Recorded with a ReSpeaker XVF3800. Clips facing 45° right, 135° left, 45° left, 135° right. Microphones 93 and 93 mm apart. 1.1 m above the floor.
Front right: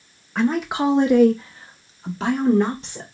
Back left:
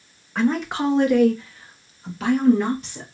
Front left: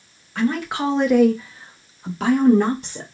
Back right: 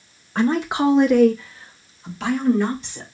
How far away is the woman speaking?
About 0.8 m.